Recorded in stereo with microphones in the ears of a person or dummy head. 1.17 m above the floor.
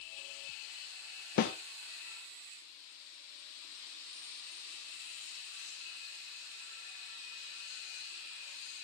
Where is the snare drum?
50° left (ahead or behind), 1.2 m.